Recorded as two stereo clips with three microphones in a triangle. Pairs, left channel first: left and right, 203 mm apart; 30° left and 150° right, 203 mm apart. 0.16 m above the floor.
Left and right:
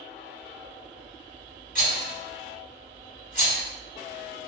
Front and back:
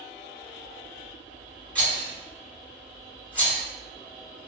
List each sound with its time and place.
1.8 s a rattle: 105° left, 1.8 m